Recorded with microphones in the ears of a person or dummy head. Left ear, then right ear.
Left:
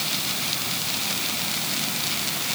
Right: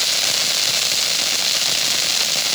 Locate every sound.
Only background noise.